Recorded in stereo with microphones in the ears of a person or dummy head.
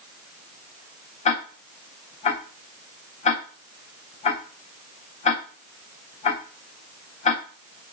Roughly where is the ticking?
Left.